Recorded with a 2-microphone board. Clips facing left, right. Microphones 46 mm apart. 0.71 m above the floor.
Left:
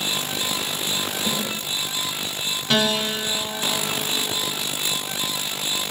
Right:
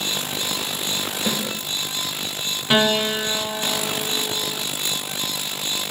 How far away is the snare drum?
About 7 m.